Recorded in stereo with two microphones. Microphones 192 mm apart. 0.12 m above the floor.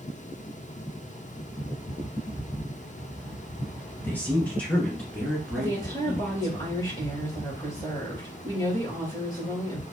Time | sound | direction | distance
4.0 | a woman speaking | 10° left (ahead or behind) | 1.6 m
5.5 | a woman speaking | 20° left (ahead or behind) | 3 m